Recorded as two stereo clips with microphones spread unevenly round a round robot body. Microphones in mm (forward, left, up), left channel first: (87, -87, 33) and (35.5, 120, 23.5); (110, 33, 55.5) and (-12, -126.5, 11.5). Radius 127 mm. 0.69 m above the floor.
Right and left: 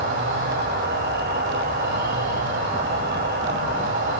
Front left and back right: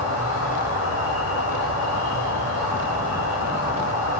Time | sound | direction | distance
0.0 | an insect | 70° left | 3.5 m